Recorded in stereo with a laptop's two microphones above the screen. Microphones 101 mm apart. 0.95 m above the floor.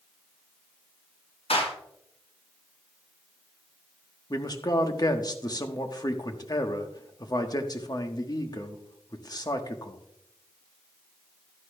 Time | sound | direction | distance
1.5 | a clap | 90° left | 5 m
4.3 | a man speaking | 40° left (ahead or behind) | 1.1 m